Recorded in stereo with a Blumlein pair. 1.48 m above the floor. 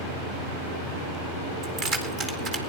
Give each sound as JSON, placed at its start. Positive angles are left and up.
{"t": 1.6, "sound": "keys jangling", "azimuth_deg": -30, "distance_m": 2.5}